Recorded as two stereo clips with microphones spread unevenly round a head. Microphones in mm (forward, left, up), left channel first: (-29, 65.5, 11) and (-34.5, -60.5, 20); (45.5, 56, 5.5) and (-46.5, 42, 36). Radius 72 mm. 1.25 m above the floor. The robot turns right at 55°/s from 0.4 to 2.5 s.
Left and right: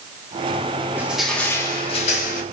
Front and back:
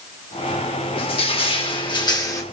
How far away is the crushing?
About 3 m.